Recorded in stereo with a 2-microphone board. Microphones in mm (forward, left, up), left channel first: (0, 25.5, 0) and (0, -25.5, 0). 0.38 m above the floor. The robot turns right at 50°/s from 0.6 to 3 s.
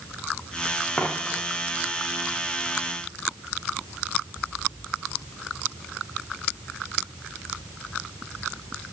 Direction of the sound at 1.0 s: 25° left (ahead or behind).